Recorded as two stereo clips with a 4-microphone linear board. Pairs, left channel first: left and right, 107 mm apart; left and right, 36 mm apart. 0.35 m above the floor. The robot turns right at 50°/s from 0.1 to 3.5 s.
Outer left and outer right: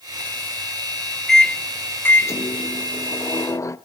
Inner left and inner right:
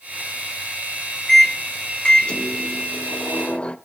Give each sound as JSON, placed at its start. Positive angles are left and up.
{"t": 1.3, "sound": "a microwave", "azimuth_deg": 5, "distance_m": 0.7}